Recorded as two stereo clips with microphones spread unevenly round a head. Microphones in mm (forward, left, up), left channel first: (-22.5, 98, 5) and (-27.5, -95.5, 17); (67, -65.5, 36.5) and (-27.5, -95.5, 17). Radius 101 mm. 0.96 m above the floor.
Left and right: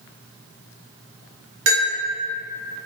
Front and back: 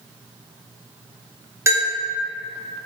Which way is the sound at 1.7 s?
100° right.